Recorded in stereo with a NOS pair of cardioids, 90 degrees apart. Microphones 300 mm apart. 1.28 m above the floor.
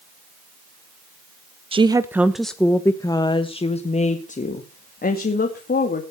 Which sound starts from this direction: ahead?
A woman speaking, at 1.7 s.